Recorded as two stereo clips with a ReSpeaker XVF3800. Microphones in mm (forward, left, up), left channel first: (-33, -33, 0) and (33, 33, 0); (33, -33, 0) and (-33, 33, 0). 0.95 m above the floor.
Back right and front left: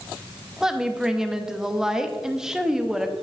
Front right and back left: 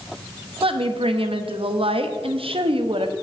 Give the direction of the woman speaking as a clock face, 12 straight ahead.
8 o'clock.